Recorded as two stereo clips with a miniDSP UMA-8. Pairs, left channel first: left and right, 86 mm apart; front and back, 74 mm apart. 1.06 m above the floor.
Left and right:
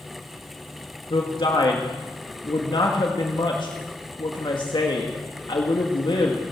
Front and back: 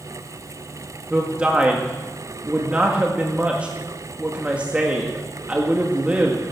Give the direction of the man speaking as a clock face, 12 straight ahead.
8 o'clock.